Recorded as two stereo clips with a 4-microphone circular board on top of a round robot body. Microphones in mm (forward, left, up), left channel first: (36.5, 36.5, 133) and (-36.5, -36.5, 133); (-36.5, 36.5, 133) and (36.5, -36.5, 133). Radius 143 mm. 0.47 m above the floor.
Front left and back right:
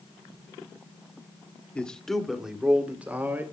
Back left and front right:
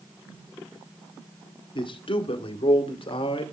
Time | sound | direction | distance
1.8 | a man speaking | 120° left | 2.0 m